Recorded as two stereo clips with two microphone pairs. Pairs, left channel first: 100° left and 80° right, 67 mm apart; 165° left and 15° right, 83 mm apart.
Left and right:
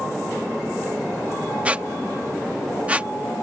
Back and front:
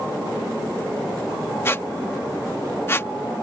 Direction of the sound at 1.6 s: 145° right.